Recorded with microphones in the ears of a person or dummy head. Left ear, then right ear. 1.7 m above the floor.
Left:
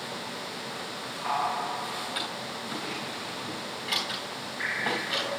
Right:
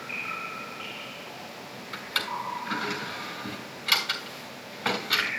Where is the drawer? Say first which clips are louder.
Right 2 dB; 35° right (ahead or behind), 3.5 m.